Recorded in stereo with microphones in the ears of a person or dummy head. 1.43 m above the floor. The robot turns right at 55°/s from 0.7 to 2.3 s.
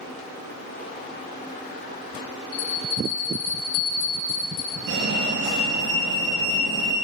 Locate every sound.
2.5 s a bell: 65° left (ahead or behind), 5.5 m
4.9 s a fire alarm: 55° right (ahead or behind), 4 m